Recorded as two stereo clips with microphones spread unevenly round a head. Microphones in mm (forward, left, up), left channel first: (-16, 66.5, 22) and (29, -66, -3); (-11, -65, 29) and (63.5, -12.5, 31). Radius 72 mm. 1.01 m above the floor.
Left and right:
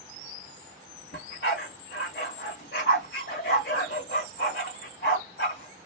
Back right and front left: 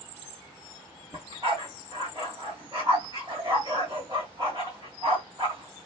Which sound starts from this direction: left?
A dog barking, at 1.1 s.